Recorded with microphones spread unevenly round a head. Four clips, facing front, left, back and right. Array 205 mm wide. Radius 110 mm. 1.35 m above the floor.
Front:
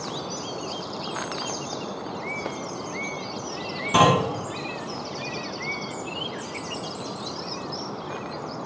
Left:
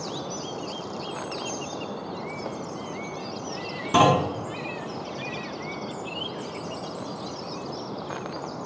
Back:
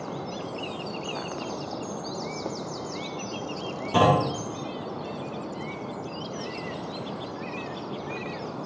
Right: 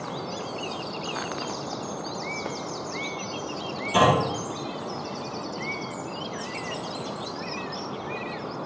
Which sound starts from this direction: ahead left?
A clunk, at 3.9 s.